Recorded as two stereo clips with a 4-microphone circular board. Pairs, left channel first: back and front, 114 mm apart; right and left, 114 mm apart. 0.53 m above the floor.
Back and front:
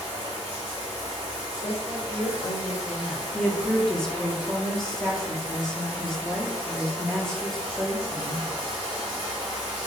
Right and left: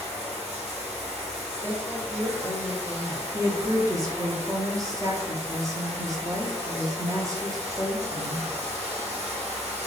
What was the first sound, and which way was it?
Running water, 80° left.